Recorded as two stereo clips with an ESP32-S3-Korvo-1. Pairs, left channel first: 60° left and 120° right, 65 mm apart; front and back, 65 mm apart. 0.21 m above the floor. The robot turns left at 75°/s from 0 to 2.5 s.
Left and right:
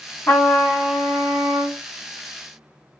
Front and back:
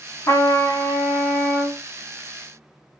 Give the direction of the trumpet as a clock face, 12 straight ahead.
12 o'clock.